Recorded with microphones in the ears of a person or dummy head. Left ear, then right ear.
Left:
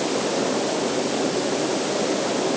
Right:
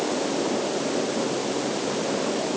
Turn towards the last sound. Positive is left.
No sound to turn to.